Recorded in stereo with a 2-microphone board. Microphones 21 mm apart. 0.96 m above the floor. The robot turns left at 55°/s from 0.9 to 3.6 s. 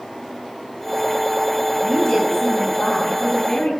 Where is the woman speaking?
170° left, 5.5 m; by 3.7 s 70° left, 5.5 m.